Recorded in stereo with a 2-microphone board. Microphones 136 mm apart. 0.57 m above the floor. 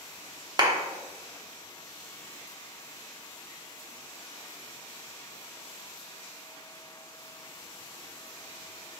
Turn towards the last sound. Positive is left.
turn(degrees=-30)  # may be behind; listen again after turning